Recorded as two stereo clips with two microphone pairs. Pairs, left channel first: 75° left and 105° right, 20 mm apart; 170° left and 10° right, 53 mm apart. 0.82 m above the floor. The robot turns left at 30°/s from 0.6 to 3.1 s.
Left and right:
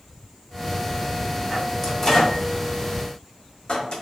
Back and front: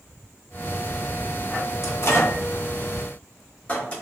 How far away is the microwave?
About 0.8 m.